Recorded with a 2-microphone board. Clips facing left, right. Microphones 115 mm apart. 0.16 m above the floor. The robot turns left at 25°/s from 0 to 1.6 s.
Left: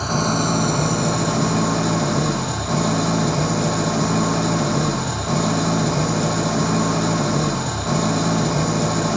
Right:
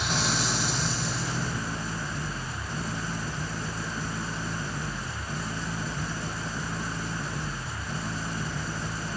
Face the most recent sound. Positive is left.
turn(degrees=100)